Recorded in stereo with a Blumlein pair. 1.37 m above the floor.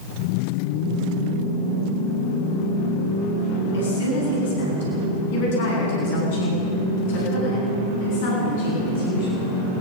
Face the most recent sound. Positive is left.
turn(degrees=50)